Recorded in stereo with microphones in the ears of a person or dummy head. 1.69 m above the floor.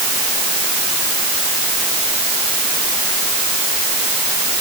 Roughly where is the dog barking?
No dog barking in this recording.